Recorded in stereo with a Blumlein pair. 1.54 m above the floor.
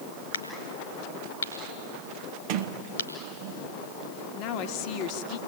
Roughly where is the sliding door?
Ahead right.